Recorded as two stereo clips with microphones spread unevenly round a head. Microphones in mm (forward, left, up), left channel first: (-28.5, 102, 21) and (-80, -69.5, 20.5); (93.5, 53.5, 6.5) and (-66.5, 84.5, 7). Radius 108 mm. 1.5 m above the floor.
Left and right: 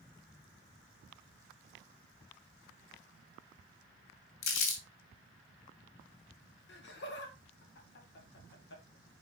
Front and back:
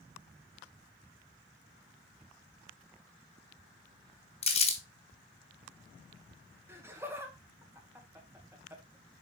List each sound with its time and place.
4.4 s crumpling: 40° left, 2 m
6.7 s laughter: 95° left, 2 m